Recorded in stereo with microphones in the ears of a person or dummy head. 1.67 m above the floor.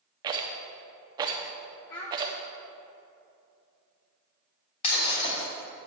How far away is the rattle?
About 0.8 m.